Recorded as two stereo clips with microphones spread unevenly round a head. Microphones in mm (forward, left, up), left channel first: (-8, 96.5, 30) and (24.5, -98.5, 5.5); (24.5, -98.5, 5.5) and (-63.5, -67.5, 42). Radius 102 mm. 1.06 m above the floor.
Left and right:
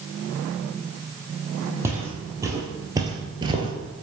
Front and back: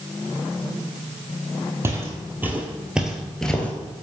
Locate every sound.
1.8 s footsteps: 160° right, 1.9 m; by 3.7 s 125° right, 1.0 m